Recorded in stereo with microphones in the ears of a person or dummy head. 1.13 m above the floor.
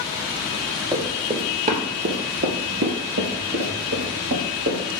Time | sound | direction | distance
0.9 | running footsteps | 25° right (ahead or behind) | 1.6 m